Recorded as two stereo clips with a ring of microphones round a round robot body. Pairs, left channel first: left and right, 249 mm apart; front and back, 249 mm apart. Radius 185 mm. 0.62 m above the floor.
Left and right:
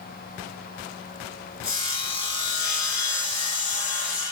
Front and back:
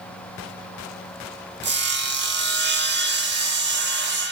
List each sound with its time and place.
1.6 s sawing: 135° left, 0.8 m